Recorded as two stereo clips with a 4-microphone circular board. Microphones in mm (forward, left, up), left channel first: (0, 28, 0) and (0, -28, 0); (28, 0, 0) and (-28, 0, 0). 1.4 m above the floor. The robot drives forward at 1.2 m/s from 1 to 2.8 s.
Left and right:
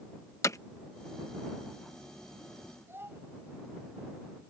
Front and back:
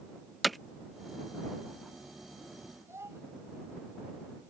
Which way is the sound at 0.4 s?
90° left.